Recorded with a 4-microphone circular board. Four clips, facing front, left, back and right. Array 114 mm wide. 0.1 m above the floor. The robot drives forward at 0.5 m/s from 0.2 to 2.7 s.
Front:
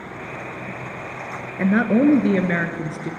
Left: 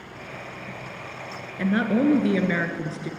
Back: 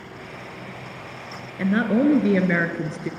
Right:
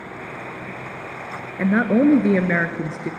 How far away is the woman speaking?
About 1.2 m.